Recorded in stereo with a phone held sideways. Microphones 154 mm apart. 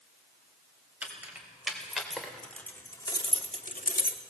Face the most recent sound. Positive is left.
turn(degrees=80)